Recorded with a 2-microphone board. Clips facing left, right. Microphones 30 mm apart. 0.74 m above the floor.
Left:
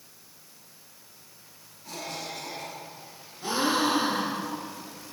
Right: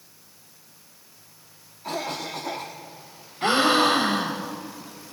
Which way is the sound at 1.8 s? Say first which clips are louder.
Right 7 dB; 65° right (ahead or behind).